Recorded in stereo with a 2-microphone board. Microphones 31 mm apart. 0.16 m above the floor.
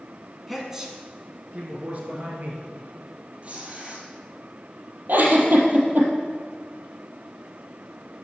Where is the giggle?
60° right (ahead or behind), 1.9 m.